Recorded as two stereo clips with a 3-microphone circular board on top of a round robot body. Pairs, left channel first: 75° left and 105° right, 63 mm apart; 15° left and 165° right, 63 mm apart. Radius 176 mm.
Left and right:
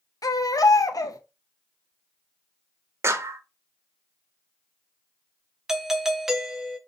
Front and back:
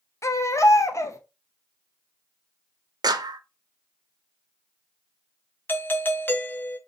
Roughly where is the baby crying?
Ahead left.